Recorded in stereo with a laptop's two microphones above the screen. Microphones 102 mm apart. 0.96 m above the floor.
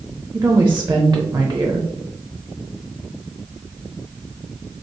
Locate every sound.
0.3 s a woman speaking: 25° right (ahead or behind), 0.6 m